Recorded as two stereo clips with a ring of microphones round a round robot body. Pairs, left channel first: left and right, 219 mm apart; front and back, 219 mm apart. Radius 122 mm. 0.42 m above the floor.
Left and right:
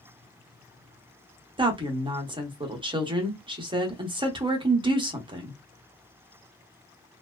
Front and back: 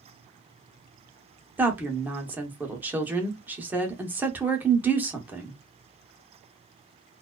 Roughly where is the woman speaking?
Right.